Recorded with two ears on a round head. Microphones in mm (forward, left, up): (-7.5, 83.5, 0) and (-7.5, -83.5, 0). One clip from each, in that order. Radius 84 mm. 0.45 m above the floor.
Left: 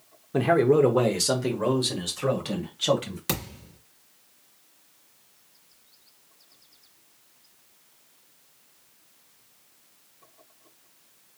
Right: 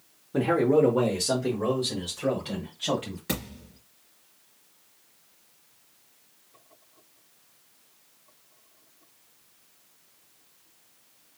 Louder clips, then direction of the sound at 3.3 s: Left 3 dB; 65° left (ahead or behind).